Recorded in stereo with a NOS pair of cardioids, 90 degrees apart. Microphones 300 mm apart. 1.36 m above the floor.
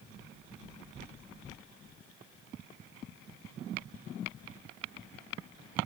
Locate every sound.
Only background noise.